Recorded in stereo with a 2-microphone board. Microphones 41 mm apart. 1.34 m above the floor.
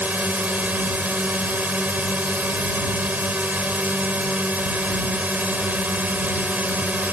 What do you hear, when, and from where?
0.0 s a drone: 45° right (ahead or behind)